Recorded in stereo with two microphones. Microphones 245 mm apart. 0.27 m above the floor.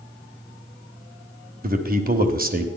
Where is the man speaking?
35° right (ahead or behind), 1.2 m.